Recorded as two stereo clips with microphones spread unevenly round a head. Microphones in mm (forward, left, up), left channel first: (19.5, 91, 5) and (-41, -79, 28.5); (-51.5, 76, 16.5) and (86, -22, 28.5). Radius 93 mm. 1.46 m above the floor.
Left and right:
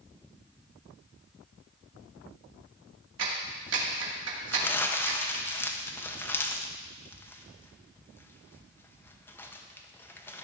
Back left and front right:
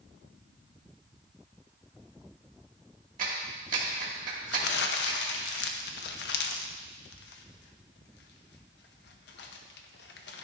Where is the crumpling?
150° left, 0.9 m.